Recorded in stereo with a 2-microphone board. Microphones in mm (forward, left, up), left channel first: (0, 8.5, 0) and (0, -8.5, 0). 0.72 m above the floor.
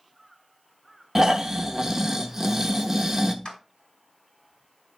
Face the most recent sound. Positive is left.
turn(degrees=60)  # may be behind; listen again after turning